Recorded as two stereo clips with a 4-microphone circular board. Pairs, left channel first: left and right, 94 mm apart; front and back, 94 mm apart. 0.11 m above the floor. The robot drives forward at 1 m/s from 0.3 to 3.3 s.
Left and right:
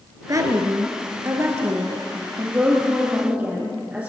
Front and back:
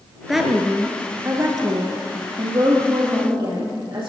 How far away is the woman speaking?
About 1.5 m.